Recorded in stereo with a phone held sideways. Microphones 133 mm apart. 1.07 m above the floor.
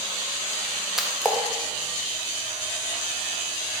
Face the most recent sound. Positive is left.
turn(degrees=-5)  # may be behind; listen again after turning